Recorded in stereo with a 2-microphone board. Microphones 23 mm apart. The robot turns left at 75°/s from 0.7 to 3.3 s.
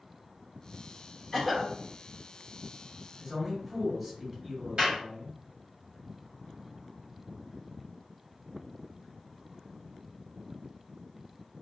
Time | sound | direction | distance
1.3 | a cough | 25° left | 0.9 m
3.2 | a man speaking | centre (ahead or behind) | 1.4 m
4.8 | a clap | 55° right (ahead or behind) | 1.6 m